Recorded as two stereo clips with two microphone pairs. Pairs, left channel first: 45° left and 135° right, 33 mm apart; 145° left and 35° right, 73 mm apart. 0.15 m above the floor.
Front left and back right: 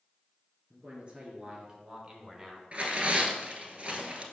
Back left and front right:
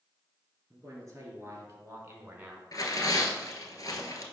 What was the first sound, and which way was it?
A man speaking, 80° right.